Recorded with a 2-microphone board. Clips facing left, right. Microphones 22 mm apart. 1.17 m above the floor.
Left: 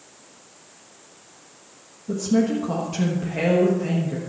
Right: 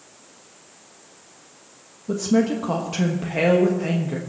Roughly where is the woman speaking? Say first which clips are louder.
Right 1 dB; right.